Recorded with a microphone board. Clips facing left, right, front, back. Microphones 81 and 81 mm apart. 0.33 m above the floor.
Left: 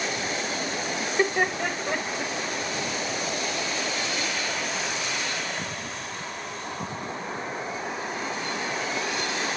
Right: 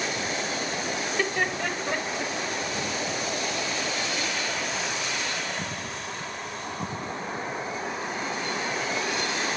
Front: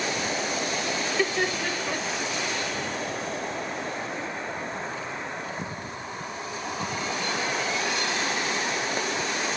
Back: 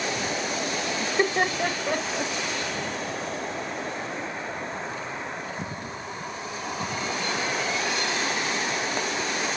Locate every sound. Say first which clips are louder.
1.0 s laughter: left 4 dB, back 3 dB; 140° left, 1.1 m; by 2.3 s straight behind, 1.5 m